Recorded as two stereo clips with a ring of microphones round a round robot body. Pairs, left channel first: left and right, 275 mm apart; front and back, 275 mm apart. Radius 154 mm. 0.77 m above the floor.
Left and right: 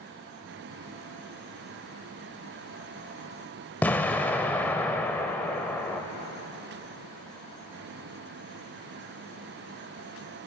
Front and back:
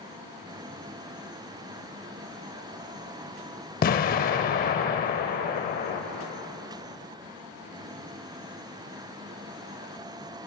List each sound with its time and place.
3.8 s an explosion: 10° left, 0.5 m